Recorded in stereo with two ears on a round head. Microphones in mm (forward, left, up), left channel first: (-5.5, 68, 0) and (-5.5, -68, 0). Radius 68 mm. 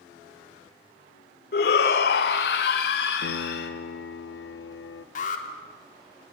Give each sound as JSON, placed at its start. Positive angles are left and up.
{"t": 1.5, "sound": "a shout", "side_deg": 70, "distance_m": 2.0}
{"t": 3.2, "sound": "a piano", "side_deg": 80, "distance_m": 1.1}
{"t": 5.2, "sound": "an alarm", "side_deg": 50, "distance_m": 3.0}